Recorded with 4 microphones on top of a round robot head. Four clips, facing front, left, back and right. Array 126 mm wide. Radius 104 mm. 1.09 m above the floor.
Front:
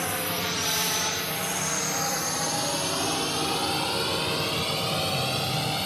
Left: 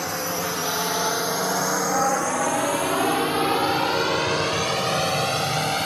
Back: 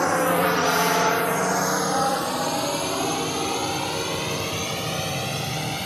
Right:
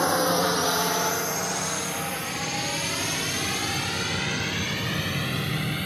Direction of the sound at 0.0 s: 150° right.